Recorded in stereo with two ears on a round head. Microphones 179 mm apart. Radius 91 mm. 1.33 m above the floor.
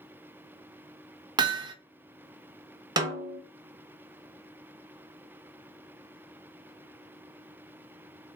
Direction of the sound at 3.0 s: 20° right (ahead or behind).